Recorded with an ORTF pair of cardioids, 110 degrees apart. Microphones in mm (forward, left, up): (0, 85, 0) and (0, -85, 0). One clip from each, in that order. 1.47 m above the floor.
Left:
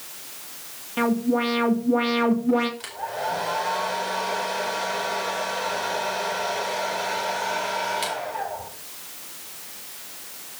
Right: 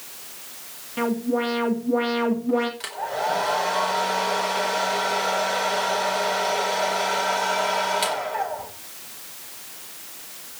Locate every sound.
1.0 s an alarm: 15° left, 3 m
2.8 s a hair dryer: 25° right, 4 m